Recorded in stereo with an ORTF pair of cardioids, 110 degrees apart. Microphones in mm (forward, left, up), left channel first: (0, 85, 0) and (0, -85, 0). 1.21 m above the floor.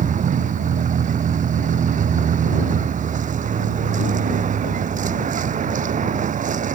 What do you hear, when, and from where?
0.0 s a vehicle: 50° right